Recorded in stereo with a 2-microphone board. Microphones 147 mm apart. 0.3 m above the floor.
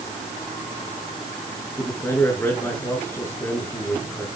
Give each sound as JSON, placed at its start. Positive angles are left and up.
{"t": 1.8, "sound": "a man speaking", "side_deg": 15, "distance_m": 5.0}